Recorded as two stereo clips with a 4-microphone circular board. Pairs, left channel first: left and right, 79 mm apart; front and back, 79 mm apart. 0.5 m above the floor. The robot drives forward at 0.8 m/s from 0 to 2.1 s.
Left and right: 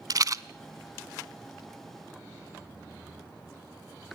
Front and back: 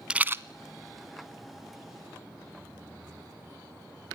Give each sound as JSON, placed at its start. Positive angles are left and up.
{"t": 0.1, "sound": "a rattle", "azimuth_deg": -105, "distance_m": 0.5}